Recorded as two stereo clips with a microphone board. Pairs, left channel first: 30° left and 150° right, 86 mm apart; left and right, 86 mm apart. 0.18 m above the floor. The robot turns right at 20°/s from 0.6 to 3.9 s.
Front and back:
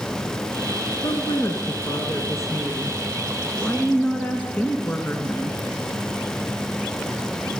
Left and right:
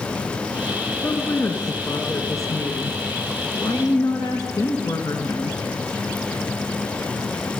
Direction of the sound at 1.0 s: 35° left.